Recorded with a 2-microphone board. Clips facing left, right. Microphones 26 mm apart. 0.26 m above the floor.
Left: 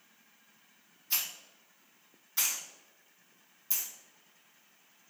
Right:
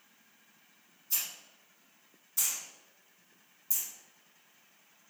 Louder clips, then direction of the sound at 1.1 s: Left 3 dB; 45° left (ahead or behind).